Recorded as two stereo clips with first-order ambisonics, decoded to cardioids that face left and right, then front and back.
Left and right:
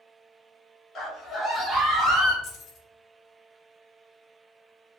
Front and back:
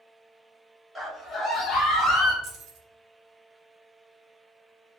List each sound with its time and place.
0.9 s a scream: 100° left, 0.9 m; by 2.3 s 20° right, 1.1 m
2.4 s keys jangling: 135° left, 0.7 m